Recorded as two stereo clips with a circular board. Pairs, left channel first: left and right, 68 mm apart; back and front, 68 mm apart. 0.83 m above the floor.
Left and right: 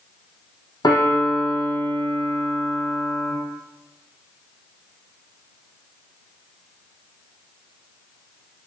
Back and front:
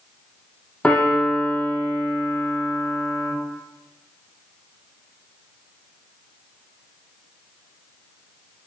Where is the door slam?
No door slam in this recording.